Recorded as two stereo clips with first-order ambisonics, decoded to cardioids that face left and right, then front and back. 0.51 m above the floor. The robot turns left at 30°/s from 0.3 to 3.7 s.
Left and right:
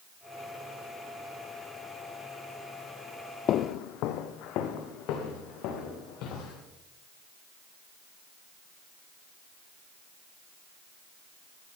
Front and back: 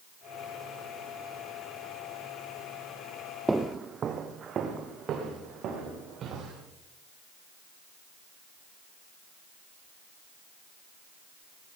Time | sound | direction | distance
3.5 | footsteps | 100° left | 0.6 m